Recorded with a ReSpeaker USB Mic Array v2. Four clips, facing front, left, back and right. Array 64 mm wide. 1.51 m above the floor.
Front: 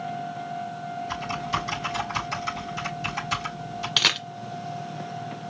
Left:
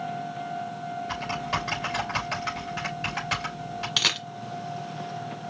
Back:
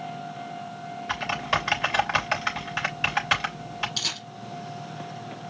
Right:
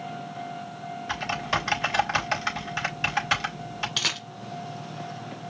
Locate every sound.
1.1 s typing on a keyboard: 155° right, 3 m
4.0 s a camera shutter: 10° left, 0.8 m